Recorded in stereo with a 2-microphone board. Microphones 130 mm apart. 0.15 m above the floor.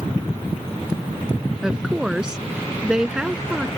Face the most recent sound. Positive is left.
turn(degrees=-5)  # may be behind; listen again after turning